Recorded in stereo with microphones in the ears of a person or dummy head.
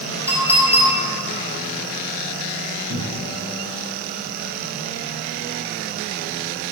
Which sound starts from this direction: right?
A cupboard door, at 2.9 s.